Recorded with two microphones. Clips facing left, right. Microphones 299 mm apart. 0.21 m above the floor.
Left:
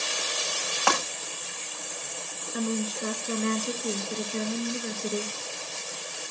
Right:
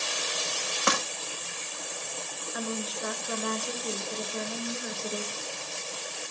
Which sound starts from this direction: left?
A woman speaking, at 2.5 s.